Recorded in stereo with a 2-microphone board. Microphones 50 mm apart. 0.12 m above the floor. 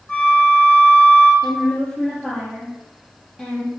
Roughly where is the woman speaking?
Centre.